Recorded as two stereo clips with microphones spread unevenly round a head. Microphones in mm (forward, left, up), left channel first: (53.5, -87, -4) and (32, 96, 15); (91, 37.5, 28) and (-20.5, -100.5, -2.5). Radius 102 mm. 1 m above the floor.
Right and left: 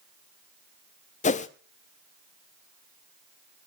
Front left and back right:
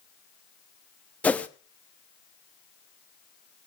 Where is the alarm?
I don't hear an alarm.